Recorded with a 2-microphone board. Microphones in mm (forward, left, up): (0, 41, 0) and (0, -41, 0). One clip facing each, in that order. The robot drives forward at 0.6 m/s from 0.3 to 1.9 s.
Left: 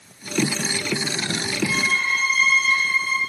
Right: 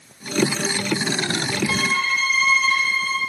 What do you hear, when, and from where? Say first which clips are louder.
1.7 s a violin: even; 80° right, 2.5 m; by 3.2 s 85° right, 2.5 m